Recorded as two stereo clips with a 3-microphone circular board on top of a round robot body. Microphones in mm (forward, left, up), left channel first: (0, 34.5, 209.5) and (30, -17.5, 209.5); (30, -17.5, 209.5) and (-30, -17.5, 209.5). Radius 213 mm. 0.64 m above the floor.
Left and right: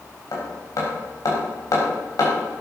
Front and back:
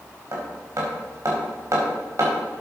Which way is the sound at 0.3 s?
145° left.